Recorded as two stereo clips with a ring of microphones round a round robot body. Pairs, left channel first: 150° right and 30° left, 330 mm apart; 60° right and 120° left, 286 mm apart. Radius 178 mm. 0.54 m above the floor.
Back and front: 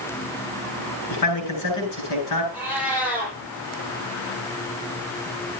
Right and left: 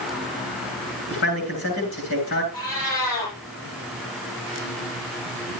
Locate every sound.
1.1 s a man speaking: 115° right, 9.5 m
2.5 s a cat meowing: 55° right, 8 m